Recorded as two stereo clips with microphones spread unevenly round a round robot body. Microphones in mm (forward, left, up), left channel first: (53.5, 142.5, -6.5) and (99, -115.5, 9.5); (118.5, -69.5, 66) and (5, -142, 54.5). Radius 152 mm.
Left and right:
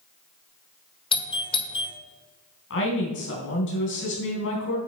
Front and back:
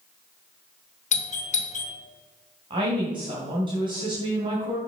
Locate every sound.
1.1 s a doorbell: 35° left, 1.8 m
2.7 s a woman speaking: 150° left, 3.5 m